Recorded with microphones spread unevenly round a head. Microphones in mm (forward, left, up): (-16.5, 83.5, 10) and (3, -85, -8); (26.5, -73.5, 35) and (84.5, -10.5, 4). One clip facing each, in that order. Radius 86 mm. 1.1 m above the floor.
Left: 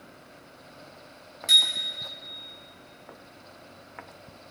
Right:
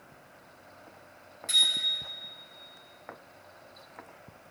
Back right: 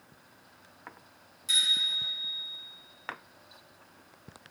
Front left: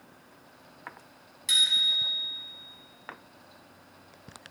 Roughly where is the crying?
No crying in this recording.